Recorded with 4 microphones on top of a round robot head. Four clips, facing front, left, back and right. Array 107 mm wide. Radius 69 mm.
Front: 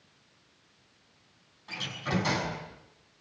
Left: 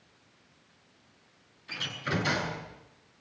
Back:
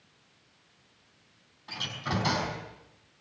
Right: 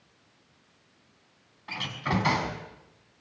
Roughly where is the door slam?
Right.